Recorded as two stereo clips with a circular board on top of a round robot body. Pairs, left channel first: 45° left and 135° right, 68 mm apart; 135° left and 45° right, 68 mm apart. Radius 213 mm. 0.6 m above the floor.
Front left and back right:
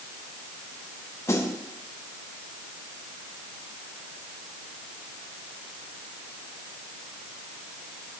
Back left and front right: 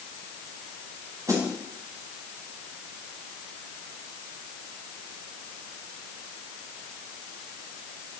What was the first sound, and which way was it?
A snare drum, 5° right.